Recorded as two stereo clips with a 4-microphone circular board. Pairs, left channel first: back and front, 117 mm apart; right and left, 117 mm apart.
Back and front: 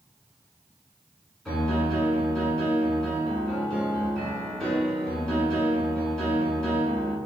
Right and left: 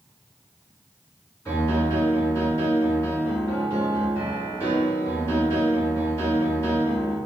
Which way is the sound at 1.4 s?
105° right.